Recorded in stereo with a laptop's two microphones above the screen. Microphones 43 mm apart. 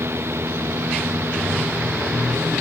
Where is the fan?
70° right (ahead or behind), 0.8 m.